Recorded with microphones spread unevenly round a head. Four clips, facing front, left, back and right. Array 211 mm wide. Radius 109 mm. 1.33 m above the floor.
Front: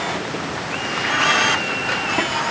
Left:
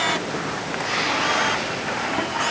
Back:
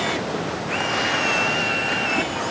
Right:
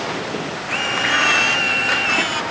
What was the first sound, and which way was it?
Only background noise.